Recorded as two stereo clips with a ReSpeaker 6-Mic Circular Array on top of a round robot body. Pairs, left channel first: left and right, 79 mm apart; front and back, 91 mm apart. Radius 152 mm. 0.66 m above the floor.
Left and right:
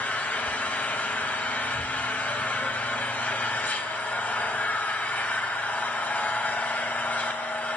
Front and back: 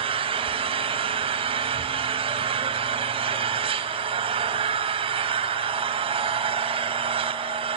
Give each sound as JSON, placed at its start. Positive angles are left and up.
{"t": 0.0, "sound": "an engine running", "azimuth_deg": 160, "distance_m": 3.0}